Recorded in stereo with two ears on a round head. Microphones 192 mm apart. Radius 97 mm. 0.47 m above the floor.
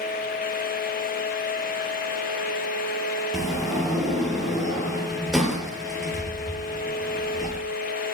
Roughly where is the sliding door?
Centre.